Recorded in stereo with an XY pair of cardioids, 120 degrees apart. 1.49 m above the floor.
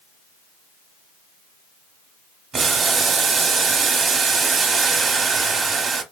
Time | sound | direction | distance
2.5 | boiling | 40° right | 0.8 m